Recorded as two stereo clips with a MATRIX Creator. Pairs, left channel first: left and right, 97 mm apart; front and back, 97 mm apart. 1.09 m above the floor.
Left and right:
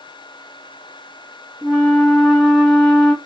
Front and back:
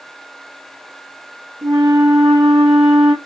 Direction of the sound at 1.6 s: 175° left.